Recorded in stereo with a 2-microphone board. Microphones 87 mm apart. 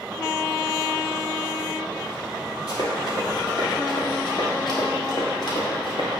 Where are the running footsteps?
50° left (ahead or behind), 2.5 m; by 6.1 s 60° left (ahead or behind), 3.5 m.